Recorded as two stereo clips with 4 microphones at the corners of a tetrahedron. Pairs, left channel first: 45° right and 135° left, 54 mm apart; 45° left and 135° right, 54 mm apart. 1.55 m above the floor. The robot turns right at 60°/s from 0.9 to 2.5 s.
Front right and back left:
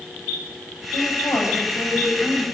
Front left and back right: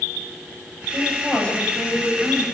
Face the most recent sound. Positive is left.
turn(degrees=35)